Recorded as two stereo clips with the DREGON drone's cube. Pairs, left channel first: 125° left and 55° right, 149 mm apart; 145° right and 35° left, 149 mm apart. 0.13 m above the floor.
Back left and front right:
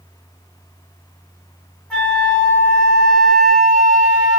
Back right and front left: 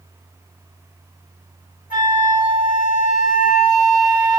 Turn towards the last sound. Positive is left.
turn(degrees=-150)